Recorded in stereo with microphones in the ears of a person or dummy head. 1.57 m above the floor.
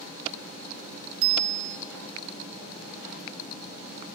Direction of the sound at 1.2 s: 70° right (ahead or behind).